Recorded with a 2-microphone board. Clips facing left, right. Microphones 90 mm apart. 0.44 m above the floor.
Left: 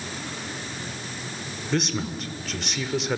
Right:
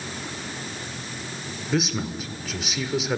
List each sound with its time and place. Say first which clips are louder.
1.7 s a man speaking: right 1 dB; 5° right (ahead or behind), 1.4 m